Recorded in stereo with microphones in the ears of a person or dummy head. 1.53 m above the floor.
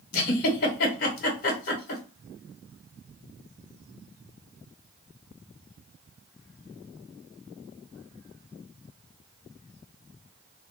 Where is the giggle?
55° left (ahead or behind), 1.1 m.